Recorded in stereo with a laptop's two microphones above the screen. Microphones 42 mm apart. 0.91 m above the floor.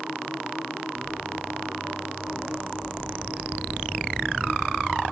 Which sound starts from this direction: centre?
Footsteps, at 1.0 s.